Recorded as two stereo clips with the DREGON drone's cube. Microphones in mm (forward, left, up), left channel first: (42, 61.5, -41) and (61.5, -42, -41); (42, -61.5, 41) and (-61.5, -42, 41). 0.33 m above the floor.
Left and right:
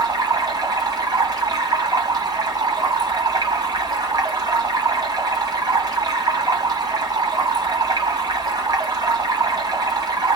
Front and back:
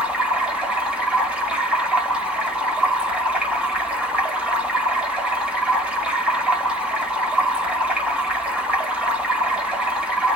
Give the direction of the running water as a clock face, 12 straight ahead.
4 o'clock.